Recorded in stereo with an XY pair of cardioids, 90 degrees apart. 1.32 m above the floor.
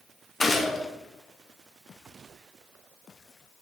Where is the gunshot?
25° left, 1.2 m.